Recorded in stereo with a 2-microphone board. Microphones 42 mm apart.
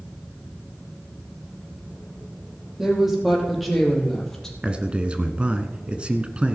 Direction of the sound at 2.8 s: 15° right (ahead or behind).